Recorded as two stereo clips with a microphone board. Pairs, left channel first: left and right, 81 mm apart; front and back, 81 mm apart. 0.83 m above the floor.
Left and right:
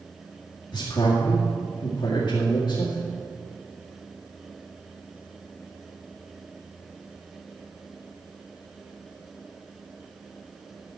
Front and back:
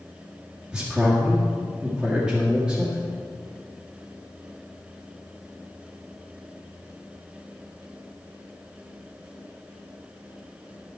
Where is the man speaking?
100° left, 1.8 m.